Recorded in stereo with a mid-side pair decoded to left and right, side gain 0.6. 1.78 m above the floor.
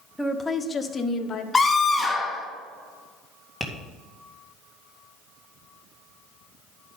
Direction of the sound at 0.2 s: 10° left.